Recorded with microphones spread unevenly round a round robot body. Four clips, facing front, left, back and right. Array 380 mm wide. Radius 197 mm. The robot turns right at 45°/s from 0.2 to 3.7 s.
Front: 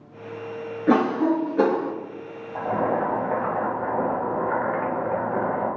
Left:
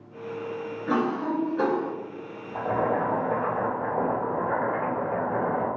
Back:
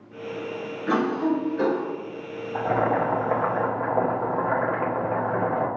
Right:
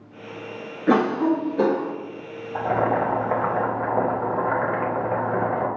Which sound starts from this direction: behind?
Boiling, at 2.5 s.